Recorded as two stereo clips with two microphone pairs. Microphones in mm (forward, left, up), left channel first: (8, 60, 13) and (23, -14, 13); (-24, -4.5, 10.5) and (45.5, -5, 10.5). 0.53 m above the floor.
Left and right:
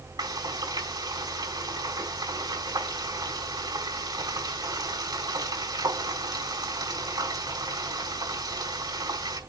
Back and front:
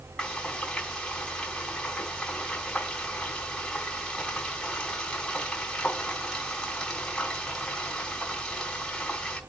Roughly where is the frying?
Right.